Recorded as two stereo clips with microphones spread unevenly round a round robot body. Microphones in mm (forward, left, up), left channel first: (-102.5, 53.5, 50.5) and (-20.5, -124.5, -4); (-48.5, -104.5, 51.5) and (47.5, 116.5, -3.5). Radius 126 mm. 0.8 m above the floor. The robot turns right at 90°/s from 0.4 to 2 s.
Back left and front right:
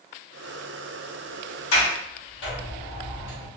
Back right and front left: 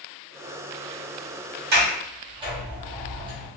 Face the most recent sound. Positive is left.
turn(degrees=130)